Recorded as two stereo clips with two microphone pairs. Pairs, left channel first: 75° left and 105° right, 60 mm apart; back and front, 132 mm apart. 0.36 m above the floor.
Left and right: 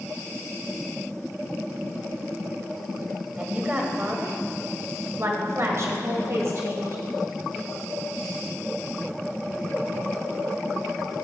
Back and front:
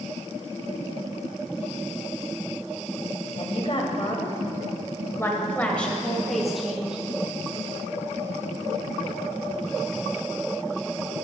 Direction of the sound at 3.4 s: 165° right.